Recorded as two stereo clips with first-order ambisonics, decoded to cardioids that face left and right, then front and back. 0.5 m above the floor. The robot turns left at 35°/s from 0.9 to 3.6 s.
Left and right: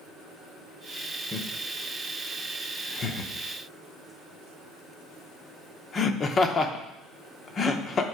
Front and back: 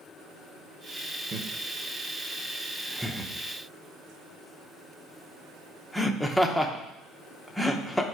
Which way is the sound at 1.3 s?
160° left.